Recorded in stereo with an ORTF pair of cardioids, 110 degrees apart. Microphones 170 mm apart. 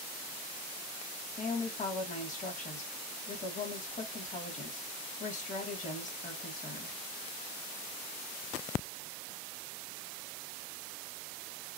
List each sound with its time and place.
1.4 s a woman speaking: 45° left, 2 m